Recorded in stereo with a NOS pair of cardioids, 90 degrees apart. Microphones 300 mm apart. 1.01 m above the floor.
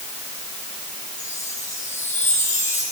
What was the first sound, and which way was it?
A chime, 25° left.